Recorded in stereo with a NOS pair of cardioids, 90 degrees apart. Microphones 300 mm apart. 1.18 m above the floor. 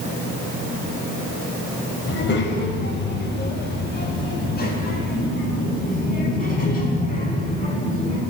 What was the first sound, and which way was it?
A child speaking, 40° left.